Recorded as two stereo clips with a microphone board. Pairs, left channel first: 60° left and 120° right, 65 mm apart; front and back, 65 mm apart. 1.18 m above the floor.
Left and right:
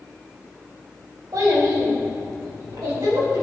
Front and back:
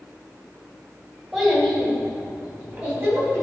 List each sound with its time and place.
1.3 s a child speaking: 95° right, 3 m; by 3.4 s 120° right, 4.5 m